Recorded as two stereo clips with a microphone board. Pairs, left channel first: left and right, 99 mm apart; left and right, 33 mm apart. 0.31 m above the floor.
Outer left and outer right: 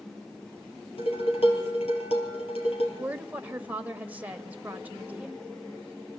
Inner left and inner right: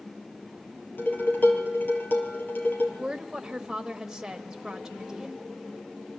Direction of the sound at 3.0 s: 15° right (ahead or behind).